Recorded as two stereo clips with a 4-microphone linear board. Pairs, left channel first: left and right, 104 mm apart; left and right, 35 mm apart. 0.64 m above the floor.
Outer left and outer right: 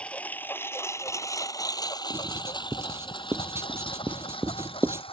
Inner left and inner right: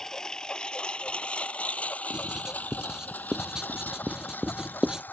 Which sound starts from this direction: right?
Writing, at 2.1 s.